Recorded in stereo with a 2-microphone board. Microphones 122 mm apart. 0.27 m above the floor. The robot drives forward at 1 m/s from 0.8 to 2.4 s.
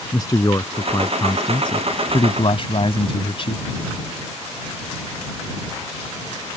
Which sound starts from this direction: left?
A man speaking, at 0.1 s.